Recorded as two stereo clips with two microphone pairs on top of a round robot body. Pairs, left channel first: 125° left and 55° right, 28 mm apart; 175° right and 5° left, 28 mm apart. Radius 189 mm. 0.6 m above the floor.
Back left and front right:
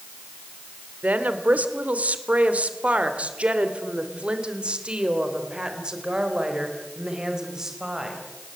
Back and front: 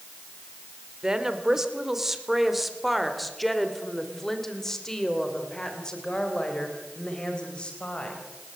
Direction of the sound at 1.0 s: 60° right.